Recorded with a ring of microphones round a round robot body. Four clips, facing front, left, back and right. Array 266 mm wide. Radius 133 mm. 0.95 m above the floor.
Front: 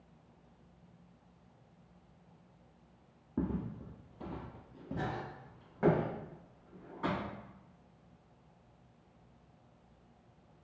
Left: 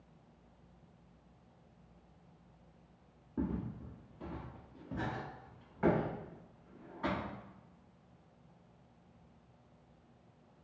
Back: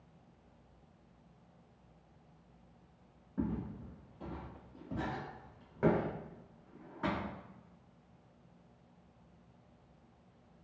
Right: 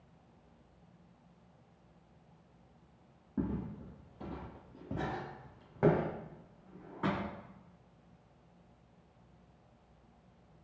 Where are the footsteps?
10° right, 1.3 m; by 7.3 s 105° right, 2.5 m.